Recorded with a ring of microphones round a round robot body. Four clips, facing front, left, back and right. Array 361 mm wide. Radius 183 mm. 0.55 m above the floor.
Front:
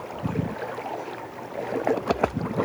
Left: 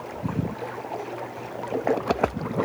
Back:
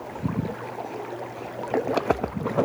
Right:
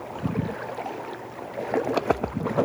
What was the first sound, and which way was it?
Only background noise.